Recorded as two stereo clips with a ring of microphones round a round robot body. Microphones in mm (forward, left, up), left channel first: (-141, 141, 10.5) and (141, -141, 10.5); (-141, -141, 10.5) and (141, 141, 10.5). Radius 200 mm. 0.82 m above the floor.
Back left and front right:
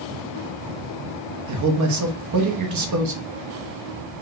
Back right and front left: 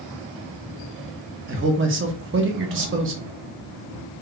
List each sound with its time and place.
1.5 s a man speaking: 10° right, 0.7 m